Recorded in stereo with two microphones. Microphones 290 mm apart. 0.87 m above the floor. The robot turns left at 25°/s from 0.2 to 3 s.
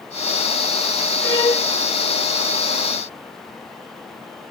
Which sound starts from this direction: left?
A violin, at 1.2 s.